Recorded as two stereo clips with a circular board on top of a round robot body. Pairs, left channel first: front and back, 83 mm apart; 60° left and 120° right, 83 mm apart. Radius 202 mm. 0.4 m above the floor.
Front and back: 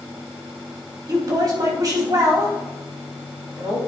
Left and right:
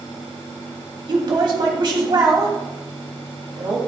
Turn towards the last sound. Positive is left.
turn(degrees=-145)